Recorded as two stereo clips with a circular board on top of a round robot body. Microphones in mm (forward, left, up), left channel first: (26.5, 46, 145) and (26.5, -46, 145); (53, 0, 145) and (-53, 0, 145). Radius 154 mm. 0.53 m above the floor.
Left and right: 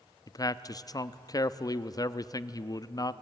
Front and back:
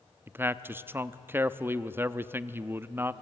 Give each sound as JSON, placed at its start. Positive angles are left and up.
{"t": 0.3, "sound": "a man speaking", "azimuth_deg": 120, "distance_m": 0.9}